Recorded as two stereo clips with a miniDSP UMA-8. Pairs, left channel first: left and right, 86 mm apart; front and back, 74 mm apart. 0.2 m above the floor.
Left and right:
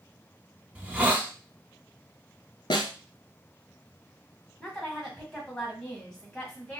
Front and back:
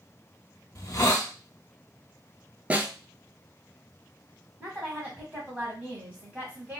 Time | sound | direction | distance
0.8 | a hiss | 20° right | 0.6 m
2.7 | a snare drum | 110° left | 0.5 m
4.6 | a woman speaking | 165° left | 1.4 m